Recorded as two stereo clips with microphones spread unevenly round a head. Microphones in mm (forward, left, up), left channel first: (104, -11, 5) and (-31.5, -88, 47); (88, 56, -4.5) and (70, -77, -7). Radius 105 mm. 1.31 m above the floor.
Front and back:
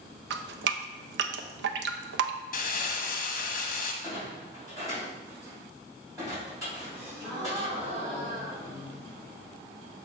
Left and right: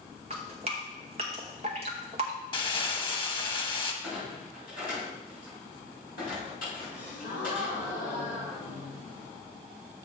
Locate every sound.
0.3 s dripping: 160° right, 0.5 m
2.5 s crumpling: 30° left, 1.3 m
4.0 s a clunk: 135° left, 4 m
6.9 s a gasp: 135° left, 2 m